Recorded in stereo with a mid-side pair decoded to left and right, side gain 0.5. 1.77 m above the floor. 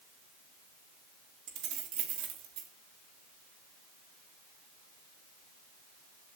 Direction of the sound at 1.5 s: 65° right.